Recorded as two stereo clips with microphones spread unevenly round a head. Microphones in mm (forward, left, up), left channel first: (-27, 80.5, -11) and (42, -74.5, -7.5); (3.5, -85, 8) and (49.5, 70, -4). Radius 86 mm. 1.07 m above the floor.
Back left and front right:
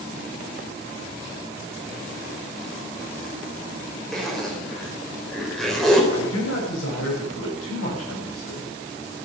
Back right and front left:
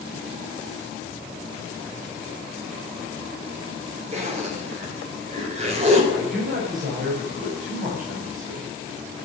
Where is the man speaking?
115° left, 6.5 m.